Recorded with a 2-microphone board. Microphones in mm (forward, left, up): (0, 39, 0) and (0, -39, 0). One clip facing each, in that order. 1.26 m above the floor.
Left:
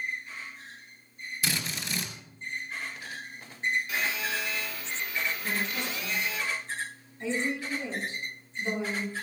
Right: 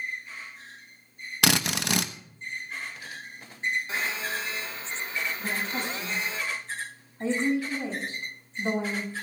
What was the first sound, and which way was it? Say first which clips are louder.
A drill: right 9 dB; 75° right (ahead or behind).